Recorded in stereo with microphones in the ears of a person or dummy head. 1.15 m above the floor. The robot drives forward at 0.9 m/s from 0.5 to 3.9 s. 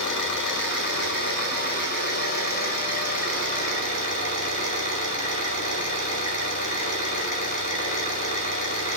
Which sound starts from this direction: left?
An engine running, at 0.0 s.